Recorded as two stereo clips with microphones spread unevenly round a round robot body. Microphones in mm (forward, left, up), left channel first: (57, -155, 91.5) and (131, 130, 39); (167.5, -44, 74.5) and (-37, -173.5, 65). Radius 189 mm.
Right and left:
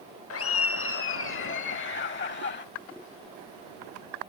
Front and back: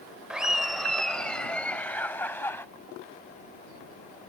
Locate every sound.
0.3 s laughter: 60° right; by 2.6 s 50° right